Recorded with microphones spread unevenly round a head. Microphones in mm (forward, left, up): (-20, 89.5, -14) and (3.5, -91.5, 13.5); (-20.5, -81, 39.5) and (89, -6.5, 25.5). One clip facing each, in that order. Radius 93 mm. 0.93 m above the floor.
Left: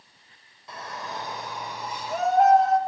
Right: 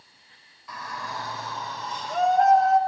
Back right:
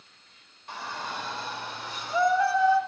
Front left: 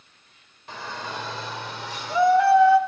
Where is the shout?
30° left, 4.5 m; by 2.8 s 5° left, 3.5 m.